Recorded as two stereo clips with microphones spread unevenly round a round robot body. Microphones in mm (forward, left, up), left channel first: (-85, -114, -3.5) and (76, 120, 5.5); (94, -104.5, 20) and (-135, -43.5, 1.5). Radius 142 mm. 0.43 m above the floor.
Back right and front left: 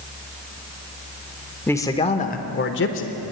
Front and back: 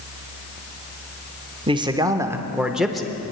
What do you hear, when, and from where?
1.7 s a man speaking: 165° left, 0.8 m; by 3.2 s 105° right, 1.1 m